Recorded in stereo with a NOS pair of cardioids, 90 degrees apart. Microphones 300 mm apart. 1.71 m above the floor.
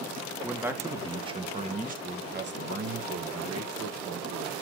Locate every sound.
0.4 s a man speaking: 5° right, 2.5 m; by 4.6 s 65° right, 2.5 m